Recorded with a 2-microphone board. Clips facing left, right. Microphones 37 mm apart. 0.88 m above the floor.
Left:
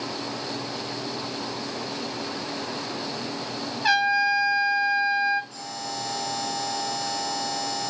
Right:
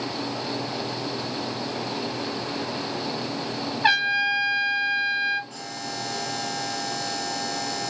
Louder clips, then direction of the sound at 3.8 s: Even; 35° right (ahead or behind).